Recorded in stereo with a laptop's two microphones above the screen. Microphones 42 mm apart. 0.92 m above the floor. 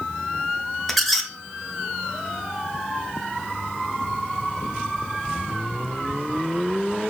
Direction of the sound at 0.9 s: 5° left (ahead or behind).